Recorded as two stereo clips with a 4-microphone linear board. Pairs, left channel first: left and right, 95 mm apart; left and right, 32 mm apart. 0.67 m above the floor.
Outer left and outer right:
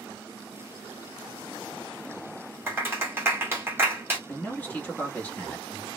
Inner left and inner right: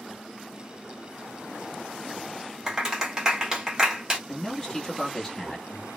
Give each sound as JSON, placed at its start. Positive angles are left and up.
{"t": 2.7, "sound": "a clap", "side_deg": -25, "distance_m": 1.2}
{"t": 4.3, "sound": "a man speaking", "side_deg": 20, "distance_m": 1.1}